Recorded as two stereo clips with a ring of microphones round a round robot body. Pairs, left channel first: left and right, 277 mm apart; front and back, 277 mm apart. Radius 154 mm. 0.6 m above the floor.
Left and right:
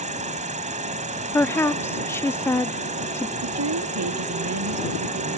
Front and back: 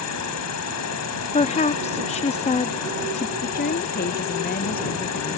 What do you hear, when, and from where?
0.0 s an insect: 25° right
1.3 s a woman speaking: 20° left
3.4 s a woman speaking: 60° right